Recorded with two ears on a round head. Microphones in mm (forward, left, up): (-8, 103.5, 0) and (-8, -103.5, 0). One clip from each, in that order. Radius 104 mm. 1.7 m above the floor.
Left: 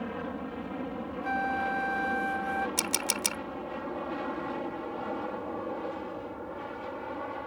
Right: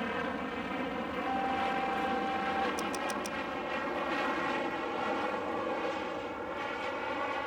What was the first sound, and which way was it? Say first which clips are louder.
An aircraft: right 2 dB; 60° right (ahead or behind).